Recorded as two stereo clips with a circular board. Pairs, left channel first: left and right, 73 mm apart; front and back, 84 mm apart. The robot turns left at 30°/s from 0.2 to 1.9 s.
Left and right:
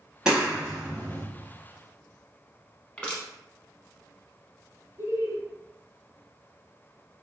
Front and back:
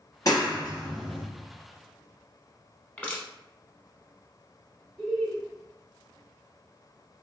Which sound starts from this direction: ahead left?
Crushing, at 3.0 s.